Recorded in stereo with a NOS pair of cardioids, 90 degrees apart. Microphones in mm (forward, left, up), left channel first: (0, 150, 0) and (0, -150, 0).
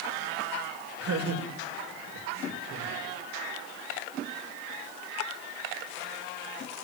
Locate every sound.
1.0 s laughter: 50° right, 7.5 m